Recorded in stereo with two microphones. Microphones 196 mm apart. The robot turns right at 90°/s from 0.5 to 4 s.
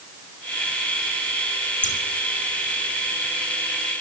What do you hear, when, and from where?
1.8 s scissors: 65° left (ahead or behind), 3 m; by 2.0 s 80° left, 3 m